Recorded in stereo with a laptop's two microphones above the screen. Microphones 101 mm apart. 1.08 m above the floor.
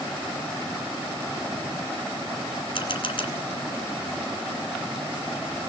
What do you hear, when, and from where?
2.8 s a camera shutter: 50° left (ahead or behind), 2 m